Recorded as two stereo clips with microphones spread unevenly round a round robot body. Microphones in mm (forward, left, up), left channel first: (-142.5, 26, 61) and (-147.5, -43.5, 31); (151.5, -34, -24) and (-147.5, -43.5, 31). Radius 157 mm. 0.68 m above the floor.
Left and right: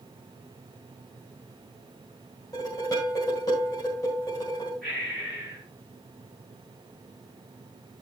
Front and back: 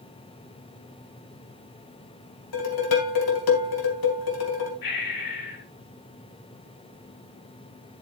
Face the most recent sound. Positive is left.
turn(degrees=-5)